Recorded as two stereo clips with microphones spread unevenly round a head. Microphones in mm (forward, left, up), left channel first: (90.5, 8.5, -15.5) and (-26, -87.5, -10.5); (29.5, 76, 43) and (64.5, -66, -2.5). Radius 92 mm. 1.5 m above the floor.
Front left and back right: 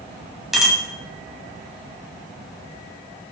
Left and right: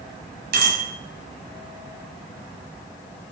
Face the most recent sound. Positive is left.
turn(degrees=-55)